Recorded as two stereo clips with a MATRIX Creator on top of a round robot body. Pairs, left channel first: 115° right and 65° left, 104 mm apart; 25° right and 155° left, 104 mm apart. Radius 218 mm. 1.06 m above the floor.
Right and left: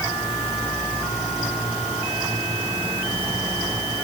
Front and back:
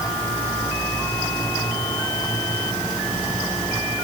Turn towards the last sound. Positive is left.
No sound to turn to.